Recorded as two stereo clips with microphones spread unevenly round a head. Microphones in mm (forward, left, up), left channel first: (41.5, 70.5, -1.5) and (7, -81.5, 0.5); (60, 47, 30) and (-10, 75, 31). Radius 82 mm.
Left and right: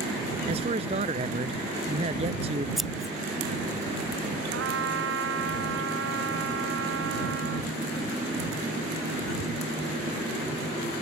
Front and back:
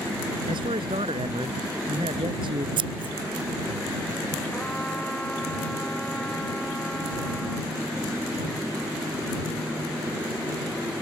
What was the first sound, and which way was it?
A man speaking, 160° right.